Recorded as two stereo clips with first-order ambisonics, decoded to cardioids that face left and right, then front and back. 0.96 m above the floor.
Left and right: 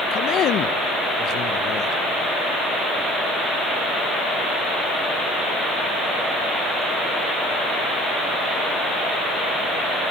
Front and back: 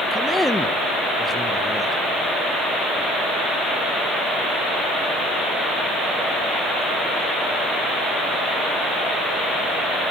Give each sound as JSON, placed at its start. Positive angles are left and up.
{"t": 0.1, "sound": "a man speaking", "azimuth_deg": 85, "distance_m": 0.6}